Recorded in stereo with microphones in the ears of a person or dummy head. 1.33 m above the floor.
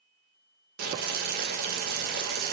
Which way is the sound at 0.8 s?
45° right (ahead or behind).